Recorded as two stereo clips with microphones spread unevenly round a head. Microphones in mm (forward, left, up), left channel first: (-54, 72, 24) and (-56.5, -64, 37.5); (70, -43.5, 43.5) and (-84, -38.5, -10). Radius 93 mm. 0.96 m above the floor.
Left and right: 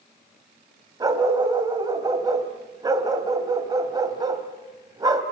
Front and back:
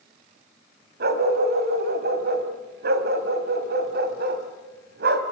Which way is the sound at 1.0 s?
155° right.